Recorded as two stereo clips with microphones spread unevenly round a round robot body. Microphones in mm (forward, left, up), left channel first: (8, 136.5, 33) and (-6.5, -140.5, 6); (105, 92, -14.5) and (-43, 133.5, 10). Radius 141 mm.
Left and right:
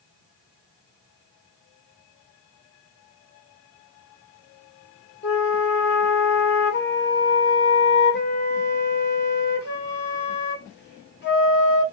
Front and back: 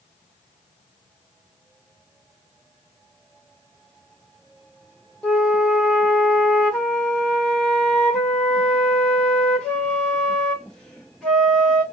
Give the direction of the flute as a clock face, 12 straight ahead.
10 o'clock.